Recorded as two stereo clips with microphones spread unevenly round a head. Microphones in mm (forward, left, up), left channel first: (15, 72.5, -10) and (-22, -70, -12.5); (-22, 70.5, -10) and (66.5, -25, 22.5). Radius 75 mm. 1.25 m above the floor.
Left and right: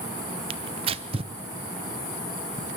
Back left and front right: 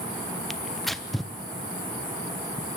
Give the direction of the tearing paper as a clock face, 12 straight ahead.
5 o'clock.